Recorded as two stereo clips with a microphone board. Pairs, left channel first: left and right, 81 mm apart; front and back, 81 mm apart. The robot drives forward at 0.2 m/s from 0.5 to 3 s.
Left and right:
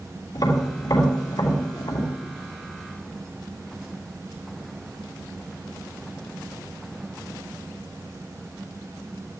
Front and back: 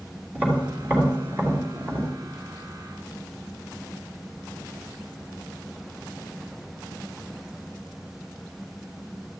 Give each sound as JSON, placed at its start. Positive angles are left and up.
{"t": 0.3, "sound": "tapping", "azimuth_deg": 115, "distance_m": 3.5}